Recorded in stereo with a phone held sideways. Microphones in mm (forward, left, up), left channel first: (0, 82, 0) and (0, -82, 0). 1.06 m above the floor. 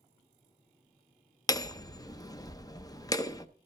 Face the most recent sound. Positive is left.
turn(degrees=20)  # may be behind; listen again after turning